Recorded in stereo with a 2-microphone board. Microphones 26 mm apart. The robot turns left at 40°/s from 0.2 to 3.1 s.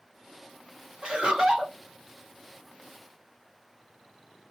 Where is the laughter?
45° right (ahead or behind), 0.6 m; by 1.8 s 25° right (ahead or behind), 0.6 m.